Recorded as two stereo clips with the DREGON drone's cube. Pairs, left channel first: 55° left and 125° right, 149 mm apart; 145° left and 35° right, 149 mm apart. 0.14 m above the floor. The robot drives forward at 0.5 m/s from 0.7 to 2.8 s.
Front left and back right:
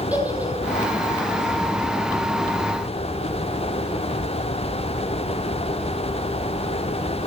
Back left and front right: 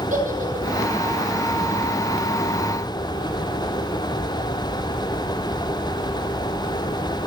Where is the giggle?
45° right, 3.5 m.